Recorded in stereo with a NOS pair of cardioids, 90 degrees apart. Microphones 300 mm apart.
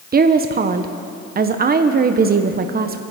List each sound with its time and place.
0.1 s a woman speaking: 30° right, 0.9 m